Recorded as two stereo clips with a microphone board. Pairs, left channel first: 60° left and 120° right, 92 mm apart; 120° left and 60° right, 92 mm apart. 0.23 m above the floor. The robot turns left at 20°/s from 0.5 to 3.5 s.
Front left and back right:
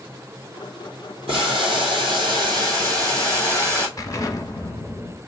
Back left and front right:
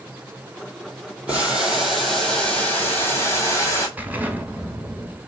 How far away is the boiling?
About 1.4 m.